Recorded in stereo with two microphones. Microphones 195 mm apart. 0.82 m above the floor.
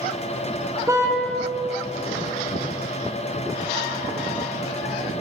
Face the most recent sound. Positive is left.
turn(degrees=-15)  # may be behind; listen again after turning